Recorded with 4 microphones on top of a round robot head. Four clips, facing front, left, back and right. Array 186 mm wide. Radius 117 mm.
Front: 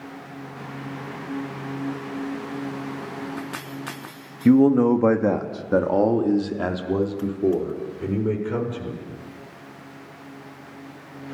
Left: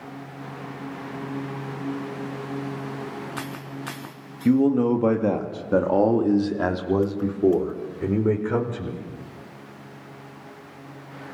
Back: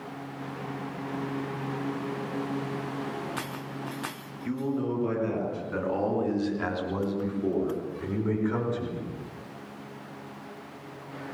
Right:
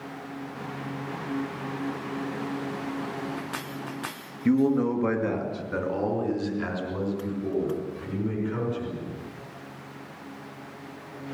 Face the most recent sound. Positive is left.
turn(degrees=70)